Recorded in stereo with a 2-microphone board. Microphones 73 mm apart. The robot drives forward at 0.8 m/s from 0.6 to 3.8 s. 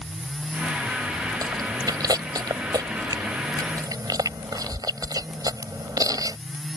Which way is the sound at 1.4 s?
60° right (ahead or behind).